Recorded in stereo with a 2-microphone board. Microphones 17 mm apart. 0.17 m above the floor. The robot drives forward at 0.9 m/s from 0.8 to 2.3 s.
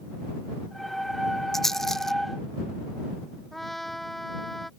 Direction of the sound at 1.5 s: 25° left (ahead or behind).